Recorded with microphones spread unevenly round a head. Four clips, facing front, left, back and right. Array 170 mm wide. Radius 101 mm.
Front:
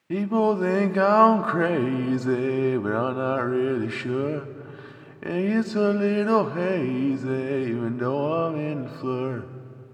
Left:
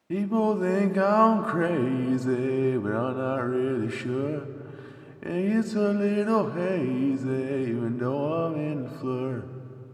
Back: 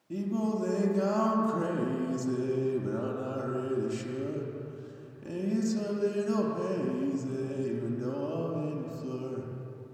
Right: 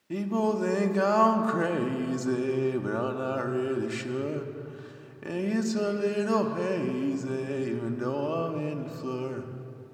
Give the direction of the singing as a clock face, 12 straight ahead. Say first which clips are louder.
Left 3 dB, front 9 dB; 12 o'clock.